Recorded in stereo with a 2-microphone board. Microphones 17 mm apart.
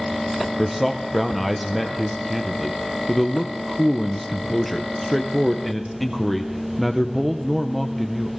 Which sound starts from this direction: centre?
A man speaking, at 0.6 s.